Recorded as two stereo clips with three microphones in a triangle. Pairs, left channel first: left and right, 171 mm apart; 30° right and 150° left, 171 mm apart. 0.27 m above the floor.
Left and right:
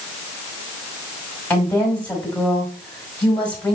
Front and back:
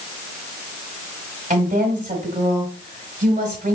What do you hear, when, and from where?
1.5 s a woman speaking: 170° left, 1.9 m